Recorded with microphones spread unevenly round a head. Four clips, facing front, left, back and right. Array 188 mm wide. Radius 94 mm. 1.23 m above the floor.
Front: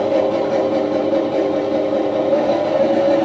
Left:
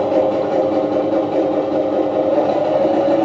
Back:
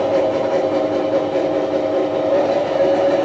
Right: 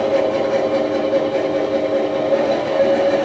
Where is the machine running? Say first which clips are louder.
Left 1 dB, even; 55° left, 7 m.